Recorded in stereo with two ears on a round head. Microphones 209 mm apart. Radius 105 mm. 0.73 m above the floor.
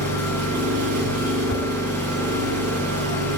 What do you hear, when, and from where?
0.0 s an engine running: 65° right (ahead or behind), 8.5 m
1.5 s a whoosh: 45° left (ahead or behind), 2.5 m